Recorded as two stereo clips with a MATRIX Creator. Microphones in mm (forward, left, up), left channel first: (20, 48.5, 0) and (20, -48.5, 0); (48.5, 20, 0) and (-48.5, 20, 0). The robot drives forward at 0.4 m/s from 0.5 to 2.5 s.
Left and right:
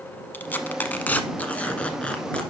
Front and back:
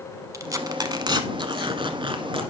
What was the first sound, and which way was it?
Tearing paper, 150° left.